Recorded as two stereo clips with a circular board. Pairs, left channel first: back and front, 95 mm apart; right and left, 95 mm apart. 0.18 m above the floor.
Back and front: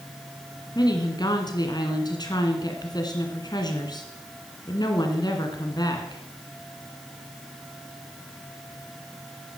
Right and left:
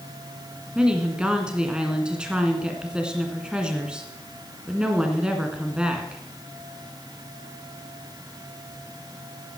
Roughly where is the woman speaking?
Behind.